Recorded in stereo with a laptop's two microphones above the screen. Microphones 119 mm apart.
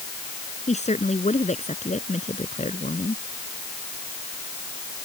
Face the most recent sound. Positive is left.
turn(degrees=75)  # may be behind; listen again after turning